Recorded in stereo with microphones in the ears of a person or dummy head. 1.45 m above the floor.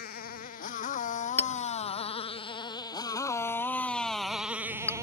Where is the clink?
10° left (ahead or behind).